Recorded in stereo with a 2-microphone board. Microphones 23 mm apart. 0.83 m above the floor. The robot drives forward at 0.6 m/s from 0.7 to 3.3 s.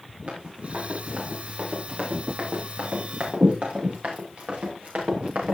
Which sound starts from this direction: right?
Running footsteps, at 0.3 s.